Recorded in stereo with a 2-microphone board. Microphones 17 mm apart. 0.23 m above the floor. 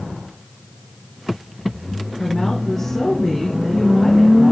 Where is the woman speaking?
25° left (ahead or behind), 3 m.